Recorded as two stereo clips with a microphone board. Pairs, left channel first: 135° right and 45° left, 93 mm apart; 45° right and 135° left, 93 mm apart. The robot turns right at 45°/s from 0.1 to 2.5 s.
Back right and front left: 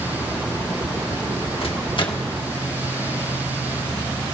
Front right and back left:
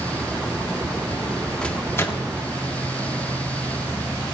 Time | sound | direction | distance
1.6 | a microwave | 125° right | 1.8 m